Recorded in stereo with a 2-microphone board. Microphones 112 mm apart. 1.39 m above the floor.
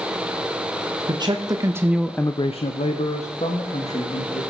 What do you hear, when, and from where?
1.1 s a man speaking: 40° right (ahead or behind), 1.4 m; by 4.4 s 70° left (ahead or behind), 2.5 m